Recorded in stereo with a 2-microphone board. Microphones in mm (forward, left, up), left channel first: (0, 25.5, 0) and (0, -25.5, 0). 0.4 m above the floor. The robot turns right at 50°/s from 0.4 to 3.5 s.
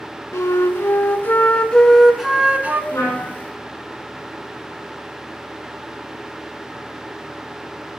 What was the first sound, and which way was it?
A flute, 95° left.